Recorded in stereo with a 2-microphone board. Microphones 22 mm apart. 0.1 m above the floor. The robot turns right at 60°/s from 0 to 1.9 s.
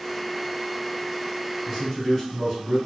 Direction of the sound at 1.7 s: 10° right (ahead or behind).